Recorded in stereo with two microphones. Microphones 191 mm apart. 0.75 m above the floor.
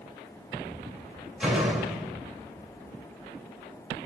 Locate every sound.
1.4 s a door slam: 5° right (ahead or behind), 2 m